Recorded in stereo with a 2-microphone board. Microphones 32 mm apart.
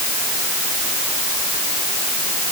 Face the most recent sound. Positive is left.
No sound to turn to.